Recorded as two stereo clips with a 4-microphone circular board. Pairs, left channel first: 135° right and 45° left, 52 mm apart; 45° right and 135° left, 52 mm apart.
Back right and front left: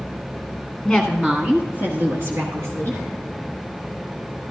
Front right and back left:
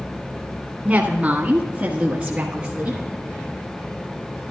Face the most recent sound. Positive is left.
turn(degrees=60)